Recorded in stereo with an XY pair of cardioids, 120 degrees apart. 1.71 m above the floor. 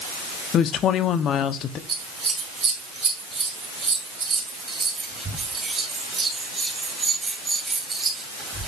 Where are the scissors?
30° right, 2.5 m.